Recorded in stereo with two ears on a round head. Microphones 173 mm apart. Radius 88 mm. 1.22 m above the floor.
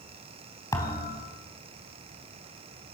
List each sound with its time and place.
0.7 s a thud: 20° left (ahead or behind), 3.5 m